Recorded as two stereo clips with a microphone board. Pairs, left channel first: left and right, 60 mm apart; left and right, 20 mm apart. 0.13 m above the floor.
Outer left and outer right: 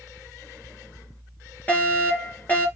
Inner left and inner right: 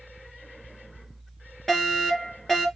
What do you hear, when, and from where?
1.7 s a fire alarm: 30° left (ahead or behind), 5 m